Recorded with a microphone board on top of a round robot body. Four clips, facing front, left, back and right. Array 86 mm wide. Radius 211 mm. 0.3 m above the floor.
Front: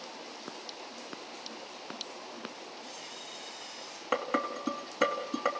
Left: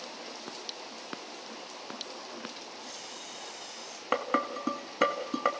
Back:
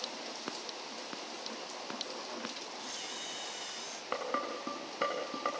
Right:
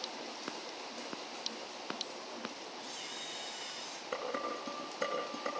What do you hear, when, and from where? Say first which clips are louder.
2.8 s a camera shutter: left 1 dB, back 1 dB; 170° right, 4.5 m
4.1 s dishes clattering: left 8 dB, front 5 dB; 75° left, 3 m